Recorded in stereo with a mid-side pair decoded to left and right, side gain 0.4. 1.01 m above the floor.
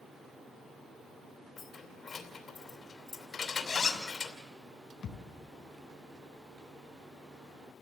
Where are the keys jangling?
55° left, 2.5 m.